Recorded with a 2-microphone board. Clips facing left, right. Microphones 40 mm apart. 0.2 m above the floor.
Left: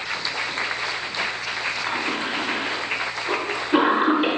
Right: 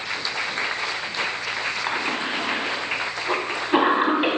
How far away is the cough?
About 1.3 m.